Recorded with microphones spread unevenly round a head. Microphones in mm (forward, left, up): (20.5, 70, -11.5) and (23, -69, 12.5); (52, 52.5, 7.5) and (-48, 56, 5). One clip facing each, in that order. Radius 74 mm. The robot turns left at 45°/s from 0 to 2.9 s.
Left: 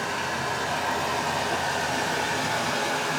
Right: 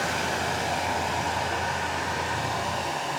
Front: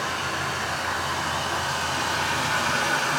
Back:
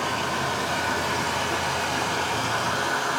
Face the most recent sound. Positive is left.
turn(degrees=100)